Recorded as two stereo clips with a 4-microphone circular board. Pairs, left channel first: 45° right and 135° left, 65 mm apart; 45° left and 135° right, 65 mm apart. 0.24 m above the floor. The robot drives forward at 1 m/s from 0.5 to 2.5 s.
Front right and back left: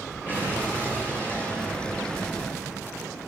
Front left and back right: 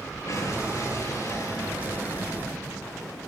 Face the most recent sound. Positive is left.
turn(degrees=15)